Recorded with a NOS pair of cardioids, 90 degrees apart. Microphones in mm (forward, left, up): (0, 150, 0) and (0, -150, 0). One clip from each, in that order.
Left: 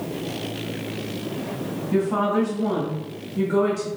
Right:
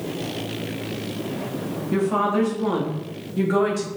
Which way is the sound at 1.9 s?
20° right.